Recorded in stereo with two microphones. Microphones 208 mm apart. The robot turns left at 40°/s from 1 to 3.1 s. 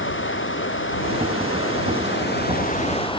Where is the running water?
110° left; by 3.2 s 25° left.